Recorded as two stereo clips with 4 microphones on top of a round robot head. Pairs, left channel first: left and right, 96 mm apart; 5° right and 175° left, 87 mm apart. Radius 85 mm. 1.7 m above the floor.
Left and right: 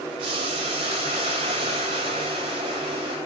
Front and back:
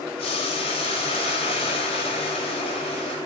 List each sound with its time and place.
0.2 s boiling: 40° right, 5.5 m